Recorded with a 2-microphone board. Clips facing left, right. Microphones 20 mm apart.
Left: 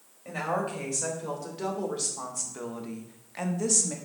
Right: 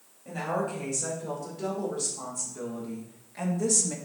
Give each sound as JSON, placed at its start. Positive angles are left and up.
{"t": 0.2, "sound": "a woman speaking", "side_deg": 75, "distance_m": 3.5}